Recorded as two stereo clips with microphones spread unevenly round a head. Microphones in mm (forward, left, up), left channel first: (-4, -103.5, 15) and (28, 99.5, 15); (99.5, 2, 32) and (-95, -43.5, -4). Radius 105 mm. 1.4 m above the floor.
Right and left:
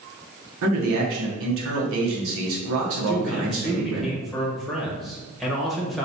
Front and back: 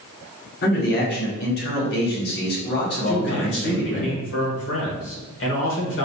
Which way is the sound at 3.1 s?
10° right.